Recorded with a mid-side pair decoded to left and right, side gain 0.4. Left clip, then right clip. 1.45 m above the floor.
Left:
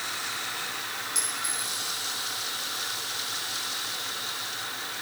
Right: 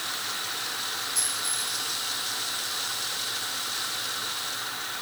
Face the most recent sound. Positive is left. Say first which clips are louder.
# right 1 dB
turn(degrees=55)